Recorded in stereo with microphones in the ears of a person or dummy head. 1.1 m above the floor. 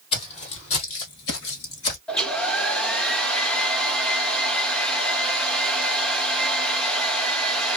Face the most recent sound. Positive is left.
turn(degrees=5)  # may be behind; listen again after turning